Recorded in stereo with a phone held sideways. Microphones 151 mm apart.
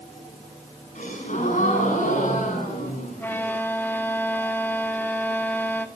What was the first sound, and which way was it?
A gasp, 60° left (ahead or behind).